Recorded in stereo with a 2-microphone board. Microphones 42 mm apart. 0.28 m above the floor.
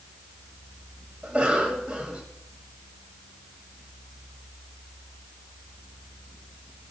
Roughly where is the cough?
Right.